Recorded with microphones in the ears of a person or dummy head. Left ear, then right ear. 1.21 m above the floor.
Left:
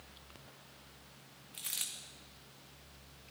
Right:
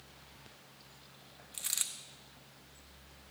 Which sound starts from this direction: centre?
A dropped coin, at 1.5 s.